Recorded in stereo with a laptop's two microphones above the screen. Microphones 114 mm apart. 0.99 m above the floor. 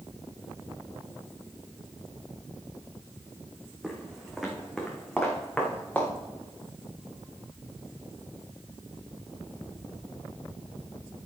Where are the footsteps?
10° right (ahead or behind), 2.5 m; by 6.1 s 10° left (ahead or behind), 4 m.